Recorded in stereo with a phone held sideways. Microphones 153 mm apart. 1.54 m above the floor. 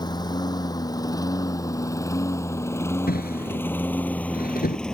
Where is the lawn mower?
25° left (ahead or behind); by 4.9 s 5° left (ahead or behind).